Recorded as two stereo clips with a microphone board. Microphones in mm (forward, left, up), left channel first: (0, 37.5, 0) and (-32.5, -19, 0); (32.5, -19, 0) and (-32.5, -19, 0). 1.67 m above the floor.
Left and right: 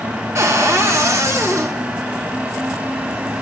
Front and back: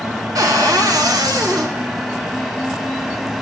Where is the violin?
I don't hear a violin.